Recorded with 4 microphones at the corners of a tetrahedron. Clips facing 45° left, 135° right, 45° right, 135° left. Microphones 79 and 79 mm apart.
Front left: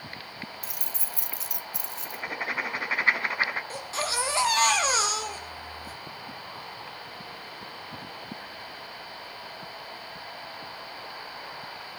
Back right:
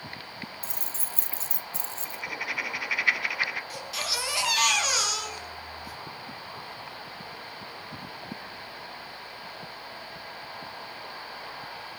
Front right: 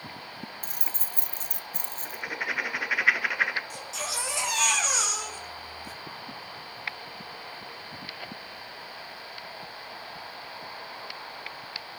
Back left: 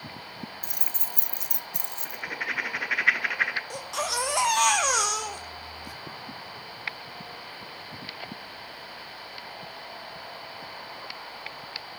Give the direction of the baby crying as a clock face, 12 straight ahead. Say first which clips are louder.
Front left 4 dB, back left 5 dB; 9 o'clock.